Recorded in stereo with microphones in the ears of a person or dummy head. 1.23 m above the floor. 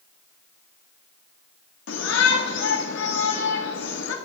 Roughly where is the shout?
Left.